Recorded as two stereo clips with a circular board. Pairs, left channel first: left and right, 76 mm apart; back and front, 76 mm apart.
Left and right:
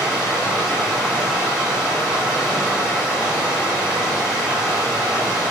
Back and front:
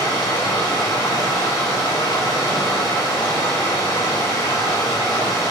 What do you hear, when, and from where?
0.0 s running water: 175° right, 5.5 m